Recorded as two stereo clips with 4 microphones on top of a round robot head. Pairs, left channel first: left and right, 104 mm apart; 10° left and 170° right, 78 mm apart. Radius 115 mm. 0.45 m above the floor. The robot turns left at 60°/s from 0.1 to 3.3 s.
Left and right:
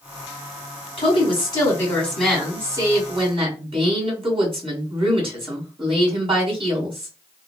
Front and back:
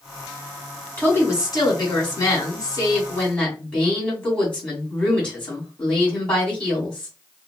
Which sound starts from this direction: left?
A woman speaking, at 1.0 s.